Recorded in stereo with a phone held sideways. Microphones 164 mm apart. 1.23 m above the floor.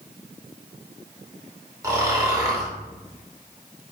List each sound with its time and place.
1.8 s snoring: 20° right (ahead or behind), 2 m